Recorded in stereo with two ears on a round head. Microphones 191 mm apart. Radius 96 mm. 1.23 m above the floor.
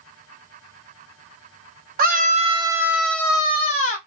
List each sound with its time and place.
2.0 s a scream: 45° right (ahead or behind), 0.8 m; by 4.0 s 40° left (ahead or behind), 0.9 m